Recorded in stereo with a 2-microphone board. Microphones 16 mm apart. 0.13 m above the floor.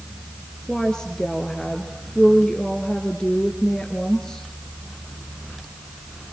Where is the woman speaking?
45° left (ahead or behind), 2 m.